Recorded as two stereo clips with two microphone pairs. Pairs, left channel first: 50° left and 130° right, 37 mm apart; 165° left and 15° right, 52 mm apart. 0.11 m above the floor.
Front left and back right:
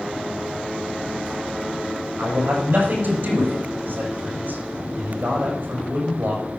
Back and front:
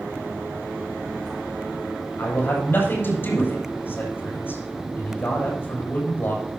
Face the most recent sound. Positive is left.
turn(degrees=-150)